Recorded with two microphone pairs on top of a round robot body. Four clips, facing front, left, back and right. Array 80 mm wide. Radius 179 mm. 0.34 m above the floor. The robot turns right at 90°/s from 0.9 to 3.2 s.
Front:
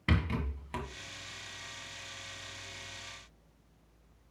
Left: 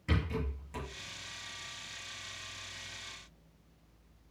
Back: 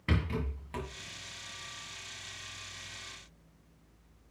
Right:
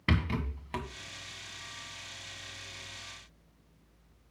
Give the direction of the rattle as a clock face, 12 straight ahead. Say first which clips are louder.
Right 4 dB, front 1 dB; 3 o'clock.